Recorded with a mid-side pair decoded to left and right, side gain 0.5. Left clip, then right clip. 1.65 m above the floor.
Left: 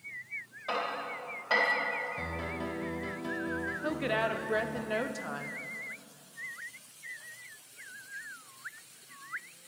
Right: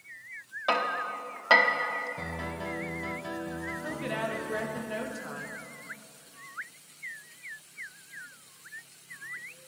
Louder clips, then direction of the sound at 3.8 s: Left 3 dB; 35° left.